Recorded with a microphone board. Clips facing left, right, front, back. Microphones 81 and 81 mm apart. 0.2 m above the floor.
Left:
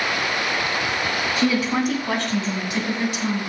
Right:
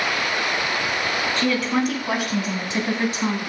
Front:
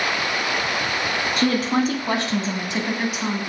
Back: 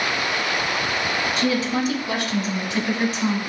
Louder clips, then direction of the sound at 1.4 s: Left 1 dB, front 4 dB; 15° left.